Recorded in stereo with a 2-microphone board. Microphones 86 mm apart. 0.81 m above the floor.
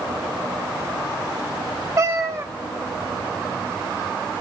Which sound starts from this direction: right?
A cat meowing, at 2.0 s.